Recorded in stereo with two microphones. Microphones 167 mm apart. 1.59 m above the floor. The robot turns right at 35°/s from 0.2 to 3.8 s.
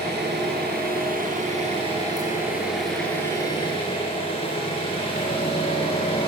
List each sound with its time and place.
0.0 s an engine running: 95° right, 9.5 m; by 6.3 s 35° left, 9.5 m